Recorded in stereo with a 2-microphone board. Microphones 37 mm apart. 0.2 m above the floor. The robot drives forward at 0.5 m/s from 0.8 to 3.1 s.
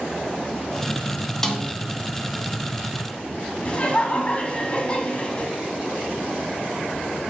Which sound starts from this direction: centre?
A snare drum, at 1.4 s.